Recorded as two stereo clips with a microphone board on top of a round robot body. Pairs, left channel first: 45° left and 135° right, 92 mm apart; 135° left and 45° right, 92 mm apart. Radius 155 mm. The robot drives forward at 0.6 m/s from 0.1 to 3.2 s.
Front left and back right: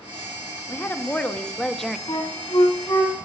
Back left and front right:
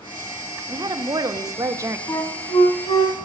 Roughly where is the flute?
Left.